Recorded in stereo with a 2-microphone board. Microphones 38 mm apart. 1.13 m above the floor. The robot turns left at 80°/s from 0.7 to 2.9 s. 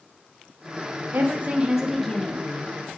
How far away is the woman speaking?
About 0.5 m.